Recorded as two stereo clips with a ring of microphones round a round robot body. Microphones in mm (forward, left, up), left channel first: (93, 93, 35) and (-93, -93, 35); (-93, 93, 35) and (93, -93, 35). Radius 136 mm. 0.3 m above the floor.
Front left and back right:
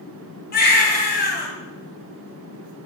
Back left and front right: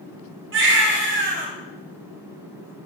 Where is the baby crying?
5° right, 2.0 m.